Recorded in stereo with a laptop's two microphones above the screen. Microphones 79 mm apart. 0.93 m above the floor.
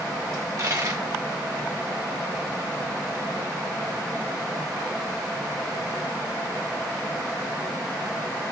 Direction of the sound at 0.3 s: 50° right (ahead or behind).